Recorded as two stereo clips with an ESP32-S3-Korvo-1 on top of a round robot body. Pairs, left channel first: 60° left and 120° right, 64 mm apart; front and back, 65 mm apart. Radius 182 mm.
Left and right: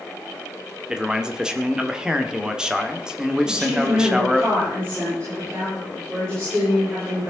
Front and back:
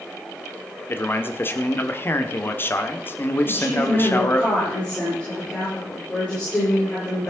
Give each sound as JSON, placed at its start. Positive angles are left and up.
{"t": 0.9, "sound": "a man speaking", "azimuth_deg": -45, "distance_m": 1.5}
{"t": 3.4, "sound": "a woman speaking", "azimuth_deg": -65, "distance_m": 9.0}